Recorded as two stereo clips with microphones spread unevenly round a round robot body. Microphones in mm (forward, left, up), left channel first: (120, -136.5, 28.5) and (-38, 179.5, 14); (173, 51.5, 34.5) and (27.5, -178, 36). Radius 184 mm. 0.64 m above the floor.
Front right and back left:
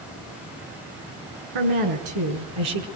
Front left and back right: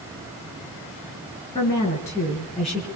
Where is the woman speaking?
135° left, 7.5 m; by 2.9 s 150° left, 6 m.